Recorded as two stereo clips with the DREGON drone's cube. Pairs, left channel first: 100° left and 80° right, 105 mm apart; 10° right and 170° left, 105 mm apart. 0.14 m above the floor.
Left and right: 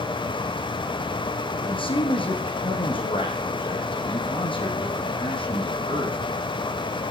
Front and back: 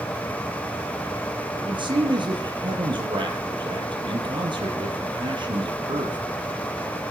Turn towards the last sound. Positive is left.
turn(degrees=130)